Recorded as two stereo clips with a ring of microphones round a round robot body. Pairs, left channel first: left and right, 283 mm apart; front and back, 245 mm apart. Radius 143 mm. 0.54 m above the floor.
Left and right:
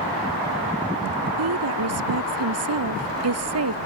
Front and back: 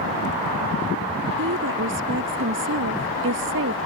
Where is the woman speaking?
130° right.